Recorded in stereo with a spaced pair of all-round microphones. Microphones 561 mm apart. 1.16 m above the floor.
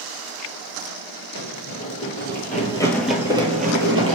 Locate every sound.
1.4 s running footsteps: 35° left (ahead or behind), 1.8 m; by 4.2 s 25° right (ahead or behind), 1.4 m